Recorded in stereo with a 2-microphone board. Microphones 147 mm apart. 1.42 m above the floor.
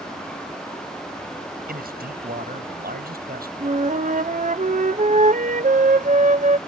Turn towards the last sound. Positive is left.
turn(degrees=-55)  # may be behind; listen again after turning